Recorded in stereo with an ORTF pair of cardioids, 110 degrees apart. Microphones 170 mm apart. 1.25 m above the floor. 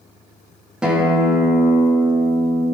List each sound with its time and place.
0.8 s a guitar: 5° right, 1.4 m